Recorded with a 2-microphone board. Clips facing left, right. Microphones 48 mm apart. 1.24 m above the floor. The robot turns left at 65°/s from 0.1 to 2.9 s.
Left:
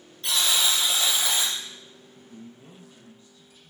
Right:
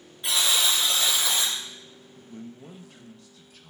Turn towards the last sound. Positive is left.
turn(degrees=-75)